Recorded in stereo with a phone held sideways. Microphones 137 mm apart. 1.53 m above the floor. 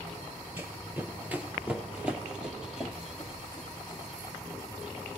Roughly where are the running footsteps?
Centre.